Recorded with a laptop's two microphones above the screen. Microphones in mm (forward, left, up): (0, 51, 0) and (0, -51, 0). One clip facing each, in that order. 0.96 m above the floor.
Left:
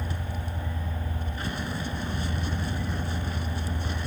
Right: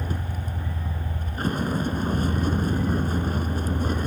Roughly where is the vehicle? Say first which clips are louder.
Right 3 dB; right.